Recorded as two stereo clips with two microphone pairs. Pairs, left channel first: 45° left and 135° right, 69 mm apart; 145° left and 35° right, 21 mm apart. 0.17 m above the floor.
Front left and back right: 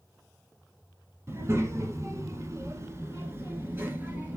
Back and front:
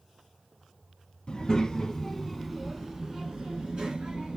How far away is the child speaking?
About 1.0 m.